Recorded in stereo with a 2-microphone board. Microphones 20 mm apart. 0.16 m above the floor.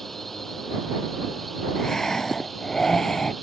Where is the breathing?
35° left (ahead or behind).